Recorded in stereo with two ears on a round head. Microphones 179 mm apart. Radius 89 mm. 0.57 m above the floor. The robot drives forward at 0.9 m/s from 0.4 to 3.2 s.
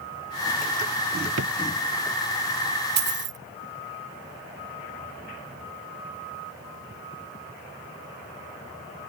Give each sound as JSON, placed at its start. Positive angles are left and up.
{"t": 1.4, "sound": "a drawer", "side_deg": -75}
{"t": 3.0, "sound": "a dropped coin", "side_deg": -55}